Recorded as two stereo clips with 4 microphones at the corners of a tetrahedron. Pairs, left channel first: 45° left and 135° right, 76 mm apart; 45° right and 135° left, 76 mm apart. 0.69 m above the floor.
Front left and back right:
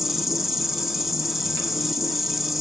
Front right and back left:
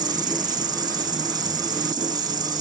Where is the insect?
140° left, 1.1 m.